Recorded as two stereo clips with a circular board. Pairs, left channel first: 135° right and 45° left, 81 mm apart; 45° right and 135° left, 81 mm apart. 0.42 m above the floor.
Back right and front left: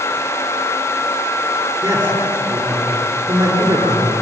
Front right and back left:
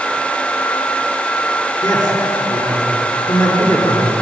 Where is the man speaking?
5° right, 8 m.